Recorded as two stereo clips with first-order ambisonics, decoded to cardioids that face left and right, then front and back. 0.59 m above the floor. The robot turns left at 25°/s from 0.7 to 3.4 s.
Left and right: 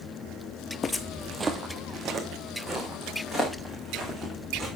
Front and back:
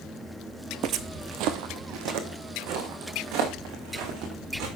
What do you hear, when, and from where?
0.8 s footsteps: 155° left, 0.8 m; by 4.7 s 175° left, 6 m